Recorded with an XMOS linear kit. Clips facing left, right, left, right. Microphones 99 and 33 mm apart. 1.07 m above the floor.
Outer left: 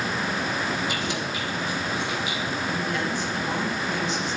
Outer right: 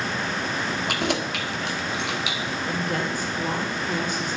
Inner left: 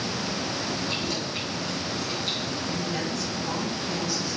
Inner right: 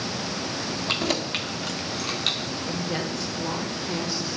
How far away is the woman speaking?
About 5 m.